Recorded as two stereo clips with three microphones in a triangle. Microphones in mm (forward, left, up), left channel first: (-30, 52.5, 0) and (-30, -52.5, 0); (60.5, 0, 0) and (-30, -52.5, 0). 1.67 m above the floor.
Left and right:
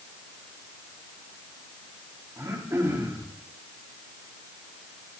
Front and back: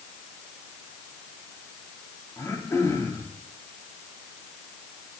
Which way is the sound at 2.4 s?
30° right.